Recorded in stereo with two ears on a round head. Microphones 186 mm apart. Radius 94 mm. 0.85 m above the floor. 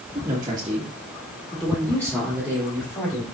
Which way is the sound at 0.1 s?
25° right (ahead or behind).